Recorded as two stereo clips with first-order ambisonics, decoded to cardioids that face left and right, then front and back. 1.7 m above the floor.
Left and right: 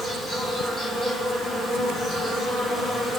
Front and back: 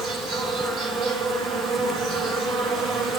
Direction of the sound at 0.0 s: 145° left.